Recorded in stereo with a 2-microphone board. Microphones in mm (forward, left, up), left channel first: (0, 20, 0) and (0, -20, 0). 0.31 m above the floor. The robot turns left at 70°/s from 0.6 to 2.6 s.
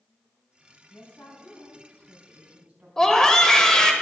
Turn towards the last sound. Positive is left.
turn(degrees=10)  # may be behind; listen again after turning